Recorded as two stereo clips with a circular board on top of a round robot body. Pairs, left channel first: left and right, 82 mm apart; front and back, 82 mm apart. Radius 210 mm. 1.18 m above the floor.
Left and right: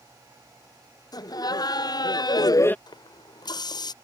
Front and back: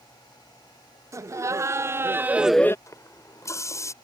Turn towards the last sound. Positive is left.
turn(degrees=55)